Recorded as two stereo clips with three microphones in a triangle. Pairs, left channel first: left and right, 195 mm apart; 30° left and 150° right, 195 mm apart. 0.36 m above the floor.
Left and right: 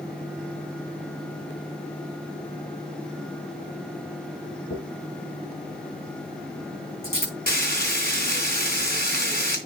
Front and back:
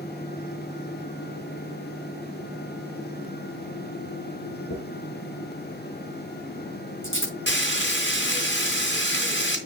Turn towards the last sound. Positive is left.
turn(degrees=50)